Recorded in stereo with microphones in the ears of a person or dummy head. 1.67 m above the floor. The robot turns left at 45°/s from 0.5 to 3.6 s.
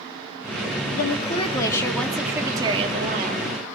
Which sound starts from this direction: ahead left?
A woman speaking, at 0.9 s.